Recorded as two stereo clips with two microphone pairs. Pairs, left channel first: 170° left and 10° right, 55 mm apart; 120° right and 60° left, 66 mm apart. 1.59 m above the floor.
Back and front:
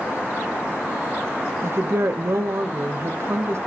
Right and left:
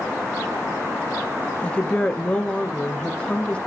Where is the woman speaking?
45° right, 0.7 m.